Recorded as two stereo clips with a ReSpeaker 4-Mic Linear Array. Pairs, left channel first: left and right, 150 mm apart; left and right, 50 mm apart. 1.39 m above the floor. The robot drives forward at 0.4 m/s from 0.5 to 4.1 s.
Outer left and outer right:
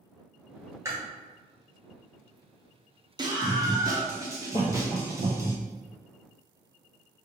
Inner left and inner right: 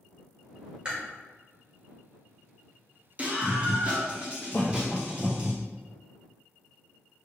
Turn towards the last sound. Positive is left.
turn(degrees=75)  # may be behind; listen again after turning